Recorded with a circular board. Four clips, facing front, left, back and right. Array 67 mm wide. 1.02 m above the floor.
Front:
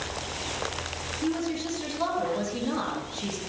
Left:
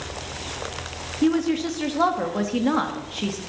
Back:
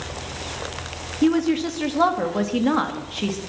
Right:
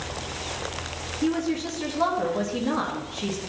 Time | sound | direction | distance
1.2 | a woman speaking | 150° left | 2 m